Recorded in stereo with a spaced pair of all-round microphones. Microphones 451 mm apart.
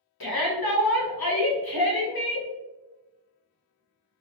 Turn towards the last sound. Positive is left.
turn(degrees=55)  # may be behind; listen again after turning